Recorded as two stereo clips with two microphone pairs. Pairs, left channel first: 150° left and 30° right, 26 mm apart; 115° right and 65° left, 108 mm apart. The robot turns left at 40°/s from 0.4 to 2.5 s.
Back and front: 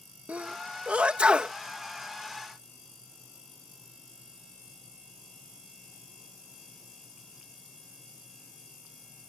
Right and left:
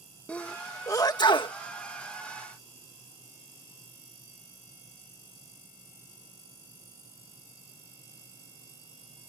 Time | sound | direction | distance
0.3 | a sneeze | 35° right | ?